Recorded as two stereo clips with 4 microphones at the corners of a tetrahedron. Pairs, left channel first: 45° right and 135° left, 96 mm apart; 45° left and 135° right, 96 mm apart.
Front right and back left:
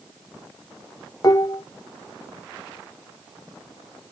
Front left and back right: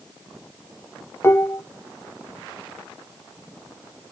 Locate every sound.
1.2 s dishes clattering: 5° right, 0.5 m